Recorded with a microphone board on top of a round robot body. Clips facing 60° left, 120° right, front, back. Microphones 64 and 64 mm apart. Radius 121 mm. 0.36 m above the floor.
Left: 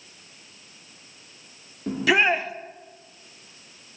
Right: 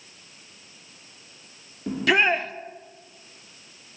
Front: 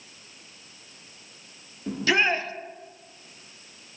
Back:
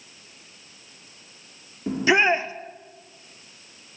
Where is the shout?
145° left, 0.8 m.